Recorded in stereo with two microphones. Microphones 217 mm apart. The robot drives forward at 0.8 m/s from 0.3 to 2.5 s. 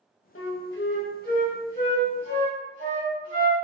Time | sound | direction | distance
0.3 | a flute | 70° left (ahead or behind) | 0.9 m